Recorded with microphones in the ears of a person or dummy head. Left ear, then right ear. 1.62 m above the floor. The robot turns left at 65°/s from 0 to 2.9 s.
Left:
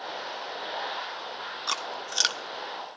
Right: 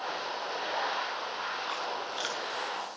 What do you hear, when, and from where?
1.7 s chewing: 80° left, 1.1 m; by 2.4 s 40° left (ahead or behind), 1.1 m